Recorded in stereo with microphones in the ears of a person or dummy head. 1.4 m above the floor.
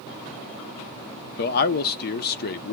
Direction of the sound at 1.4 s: 55° left (ahead or behind).